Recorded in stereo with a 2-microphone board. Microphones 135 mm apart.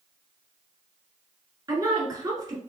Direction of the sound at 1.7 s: 25° right (ahead or behind).